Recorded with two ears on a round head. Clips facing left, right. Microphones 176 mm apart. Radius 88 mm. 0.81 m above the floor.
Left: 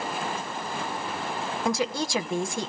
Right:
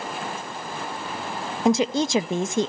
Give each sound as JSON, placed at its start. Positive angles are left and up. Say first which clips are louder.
{"t": 1.6, "sound": "a woman speaking", "louder": "right 8 dB", "side_deg": -20, "distance_m": 0.7}